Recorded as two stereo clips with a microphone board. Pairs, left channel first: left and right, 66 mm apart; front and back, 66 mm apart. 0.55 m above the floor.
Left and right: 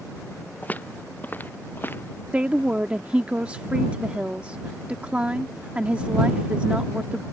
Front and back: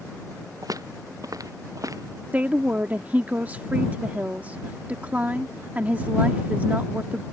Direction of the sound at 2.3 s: 140° right.